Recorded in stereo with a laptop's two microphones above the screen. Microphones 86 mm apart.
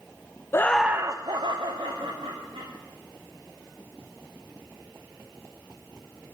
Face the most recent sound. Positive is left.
turn(degrees=-80)